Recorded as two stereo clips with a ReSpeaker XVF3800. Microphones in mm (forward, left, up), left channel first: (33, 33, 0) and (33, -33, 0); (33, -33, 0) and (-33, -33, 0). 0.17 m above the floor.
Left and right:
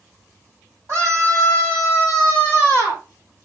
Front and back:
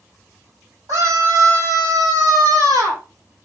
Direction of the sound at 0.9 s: 135° right.